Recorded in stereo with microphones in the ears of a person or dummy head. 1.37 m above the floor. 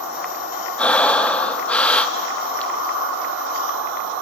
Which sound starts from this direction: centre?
Breathing, at 0.8 s.